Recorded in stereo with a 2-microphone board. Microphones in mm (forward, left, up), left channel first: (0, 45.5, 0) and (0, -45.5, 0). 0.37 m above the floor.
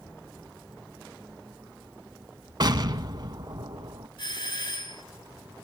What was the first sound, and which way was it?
An explosion, 50° right (ahead or behind).